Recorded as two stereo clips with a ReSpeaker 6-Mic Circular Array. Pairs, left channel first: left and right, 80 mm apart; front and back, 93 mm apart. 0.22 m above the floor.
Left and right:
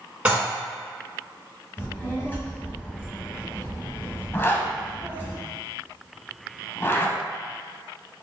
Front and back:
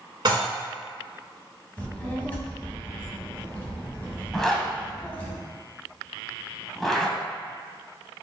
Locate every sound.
0.2 s dishes clattering: 155° right, 1.6 m
1.8 s a child speaking: 55° left, 1.2 m
4.3 s a zipper: 85° left, 0.5 m